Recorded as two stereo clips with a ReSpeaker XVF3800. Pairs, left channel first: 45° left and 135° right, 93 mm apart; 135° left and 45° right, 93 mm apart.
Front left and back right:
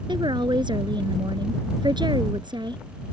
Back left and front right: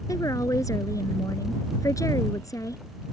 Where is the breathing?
No breathing in this recording.